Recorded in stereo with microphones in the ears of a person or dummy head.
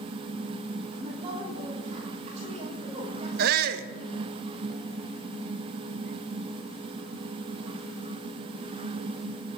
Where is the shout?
55° right (ahead or behind), 0.6 m.